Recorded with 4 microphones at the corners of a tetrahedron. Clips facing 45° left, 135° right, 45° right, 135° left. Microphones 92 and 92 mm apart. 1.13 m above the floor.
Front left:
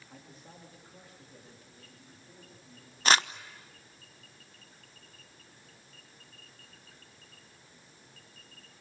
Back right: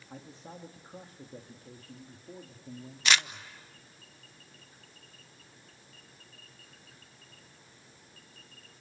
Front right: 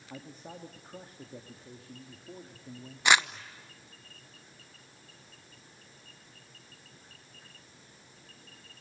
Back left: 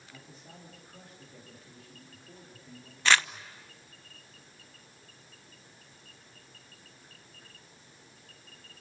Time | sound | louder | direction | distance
0.1 | a man speaking | back right 7 dB, front right 8 dB | 75° right | 2.5 m
3.0 | crumpling | front left 4 dB, front right 1 dB | 20° left | 0.8 m